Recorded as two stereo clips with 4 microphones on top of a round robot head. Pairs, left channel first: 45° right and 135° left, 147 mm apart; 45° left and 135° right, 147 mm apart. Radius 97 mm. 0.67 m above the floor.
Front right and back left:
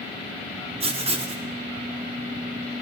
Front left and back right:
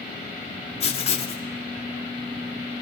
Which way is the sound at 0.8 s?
90° left.